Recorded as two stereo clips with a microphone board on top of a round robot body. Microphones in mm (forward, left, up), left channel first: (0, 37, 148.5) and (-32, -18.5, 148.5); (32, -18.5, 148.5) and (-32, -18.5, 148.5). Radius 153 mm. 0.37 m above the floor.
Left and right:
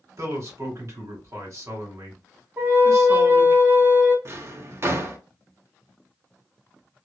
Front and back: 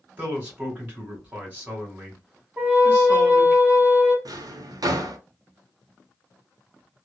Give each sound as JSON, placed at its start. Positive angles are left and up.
{"t": 0.2, "sound": "a man speaking", "azimuth_deg": -120, "distance_m": 2.0}
{"t": 2.6, "sound": "a flute", "azimuth_deg": -140, "distance_m": 1.5}
{"t": 4.2, "sound": "a drawer", "azimuth_deg": -165, "distance_m": 0.7}